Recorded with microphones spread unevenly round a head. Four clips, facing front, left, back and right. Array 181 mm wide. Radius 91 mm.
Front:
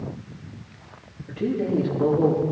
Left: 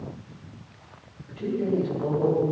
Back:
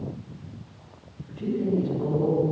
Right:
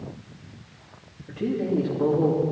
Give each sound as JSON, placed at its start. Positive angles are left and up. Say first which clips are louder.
{"t": 1.3, "sound": "a man speaking", "louder": "right 1 dB, front 2 dB", "azimuth_deg": -40, "distance_m": 3.5}